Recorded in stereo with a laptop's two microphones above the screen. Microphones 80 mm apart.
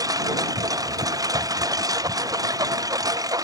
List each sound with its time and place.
0.0 s a lawn mower: 50° right (ahead or behind)